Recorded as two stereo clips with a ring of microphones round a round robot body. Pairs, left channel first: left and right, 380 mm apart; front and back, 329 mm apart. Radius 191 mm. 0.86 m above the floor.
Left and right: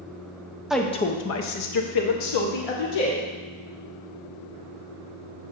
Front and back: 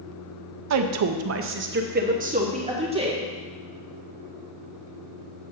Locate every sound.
0.7 s a woman speaking: straight behind, 0.6 m; by 3.2 s 105° left, 1.7 m